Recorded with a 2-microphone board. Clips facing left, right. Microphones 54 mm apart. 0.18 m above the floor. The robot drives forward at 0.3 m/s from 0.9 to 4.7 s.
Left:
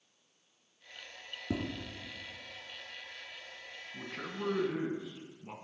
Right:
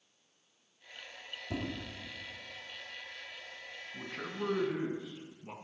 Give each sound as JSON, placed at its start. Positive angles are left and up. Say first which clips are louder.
{"t": 1.5, "sound": "tapping", "louder": "left 2 dB", "side_deg": 65, "distance_m": 2.0}
{"t": 3.9, "sound": "a man speaking", "louder": "right 1 dB", "side_deg": -15, "distance_m": 1.5}